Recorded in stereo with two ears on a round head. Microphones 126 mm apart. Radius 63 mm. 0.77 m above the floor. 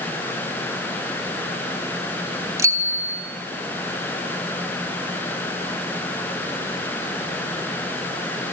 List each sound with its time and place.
2.6 s a bicycle bell: 20° right (ahead or behind), 3.5 m